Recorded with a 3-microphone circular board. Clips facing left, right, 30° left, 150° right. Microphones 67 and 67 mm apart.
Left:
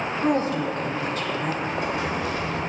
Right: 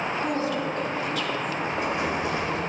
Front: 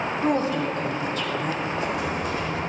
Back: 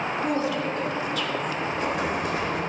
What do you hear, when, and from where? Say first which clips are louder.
0.2 s a woman speaking: left 7 dB, front 4 dB; 65° left, 1.2 m
1.6 s an explosion: even, even; 155° right, 2.0 m